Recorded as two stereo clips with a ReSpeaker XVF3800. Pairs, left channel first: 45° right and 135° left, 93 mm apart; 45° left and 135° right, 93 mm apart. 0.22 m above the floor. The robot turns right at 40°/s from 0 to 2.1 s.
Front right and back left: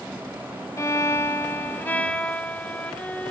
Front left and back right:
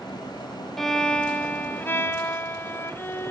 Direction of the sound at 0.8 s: 35° right.